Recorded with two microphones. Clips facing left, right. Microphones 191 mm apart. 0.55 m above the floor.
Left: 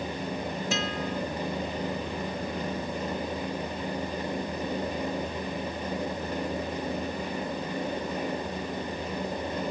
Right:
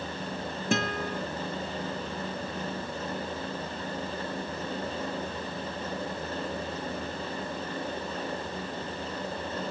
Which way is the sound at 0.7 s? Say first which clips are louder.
Right 4 dB; 55° right (ahead or behind).